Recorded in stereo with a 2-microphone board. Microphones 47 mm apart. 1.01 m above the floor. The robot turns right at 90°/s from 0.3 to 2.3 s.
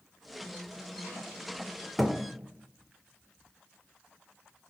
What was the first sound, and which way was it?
A thud, 5° left (ahead or behind).